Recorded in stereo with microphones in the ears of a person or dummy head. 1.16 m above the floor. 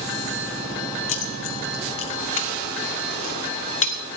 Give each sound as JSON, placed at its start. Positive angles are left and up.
{"t": 1.1, "sound": "keys jangling", "side_deg": 45, "distance_m": 1.1}